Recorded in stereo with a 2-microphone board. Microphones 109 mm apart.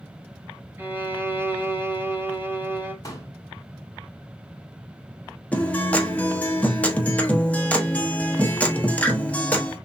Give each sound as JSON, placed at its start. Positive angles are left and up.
{"t": 0.8, "sound": "a violin", "side_deg": -20, "distance_m": 1.3}
{"t": 3.0, "sound": "a pop", "side_deg": 30, "distance_m": 2.0}
{"t": 5.5, "sound": "a guitar", "side_deg": 15, "distance_m": 1.1}